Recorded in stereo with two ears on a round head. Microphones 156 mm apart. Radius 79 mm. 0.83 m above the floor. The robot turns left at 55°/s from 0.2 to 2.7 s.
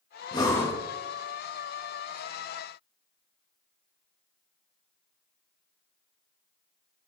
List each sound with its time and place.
0.3 s breathing: 25° left (ahead or behind), 1.2 m; by 0.8 s 5° left (ahead or behind), 1.2 m